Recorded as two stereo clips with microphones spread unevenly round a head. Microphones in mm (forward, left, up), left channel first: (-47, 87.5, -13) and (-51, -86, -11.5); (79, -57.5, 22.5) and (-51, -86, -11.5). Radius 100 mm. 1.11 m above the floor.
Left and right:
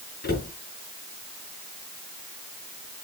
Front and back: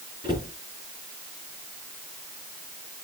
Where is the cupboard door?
120° left, 6 m.